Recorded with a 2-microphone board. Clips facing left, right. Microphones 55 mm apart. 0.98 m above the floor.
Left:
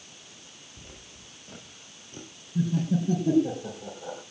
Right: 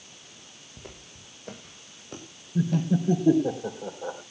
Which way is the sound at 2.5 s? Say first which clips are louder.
Right 1 dB; 30° right (ahead or behind).